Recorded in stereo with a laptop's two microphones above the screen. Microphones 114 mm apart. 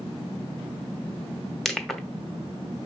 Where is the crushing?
5° left (ahead or behind), 1.6 m.